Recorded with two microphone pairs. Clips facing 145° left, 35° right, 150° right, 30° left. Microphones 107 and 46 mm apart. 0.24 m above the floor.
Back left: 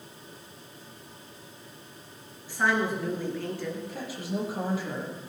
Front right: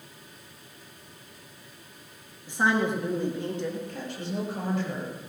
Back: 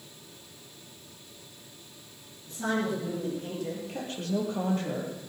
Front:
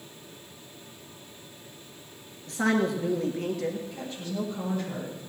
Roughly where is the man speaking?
Ahead left.